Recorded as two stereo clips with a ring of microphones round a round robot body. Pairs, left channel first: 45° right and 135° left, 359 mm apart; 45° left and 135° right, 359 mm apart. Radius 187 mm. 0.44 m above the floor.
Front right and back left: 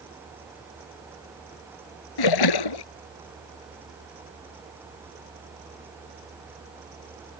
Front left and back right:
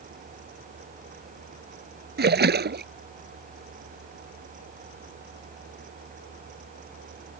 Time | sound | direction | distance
2.2 | a splash | 70° right | ?